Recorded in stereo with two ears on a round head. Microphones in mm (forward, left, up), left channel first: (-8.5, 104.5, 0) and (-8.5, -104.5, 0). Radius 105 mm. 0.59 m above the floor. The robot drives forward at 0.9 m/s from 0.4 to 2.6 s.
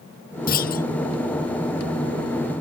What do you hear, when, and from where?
0.5 s a clunk: 40° left (ahead or behind)